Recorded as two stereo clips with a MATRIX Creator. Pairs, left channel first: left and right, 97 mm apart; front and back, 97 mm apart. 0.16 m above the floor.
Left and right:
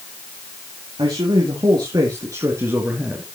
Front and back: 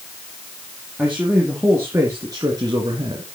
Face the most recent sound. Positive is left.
turn(degrees=-165)